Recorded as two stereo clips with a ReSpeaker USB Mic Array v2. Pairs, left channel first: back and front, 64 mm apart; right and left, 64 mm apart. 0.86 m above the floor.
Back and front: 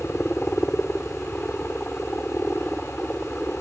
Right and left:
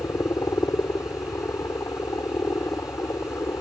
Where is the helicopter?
115° right.